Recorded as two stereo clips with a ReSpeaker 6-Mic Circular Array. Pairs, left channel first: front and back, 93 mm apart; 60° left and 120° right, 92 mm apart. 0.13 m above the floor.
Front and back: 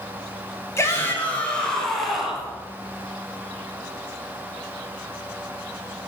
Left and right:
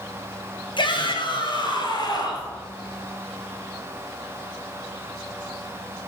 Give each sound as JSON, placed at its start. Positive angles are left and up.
{"t": 0.8, "sound": "a shout", "azimuth_deg": 55, "distance_m": 2.5}